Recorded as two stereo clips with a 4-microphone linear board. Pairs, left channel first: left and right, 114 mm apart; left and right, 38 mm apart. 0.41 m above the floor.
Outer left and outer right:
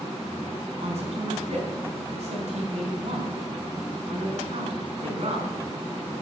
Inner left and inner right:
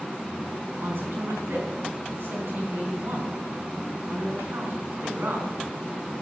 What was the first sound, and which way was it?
A man speaking, 70° right (ahead or behind).